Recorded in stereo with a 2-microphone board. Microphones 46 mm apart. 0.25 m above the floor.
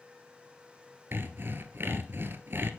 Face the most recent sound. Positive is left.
turn(degrees=-55)  # may be behind; listen again after turning